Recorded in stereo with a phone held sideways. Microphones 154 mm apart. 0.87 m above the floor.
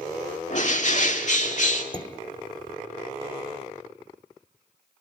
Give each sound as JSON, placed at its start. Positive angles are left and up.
{"t": 0.5, "sound": "a bird", "side_deg": 50, "distance_m": 2.0}
{"t": 1.9, "sound": "dishes clattering", "side_deg": 30, "distance_m": 1.5}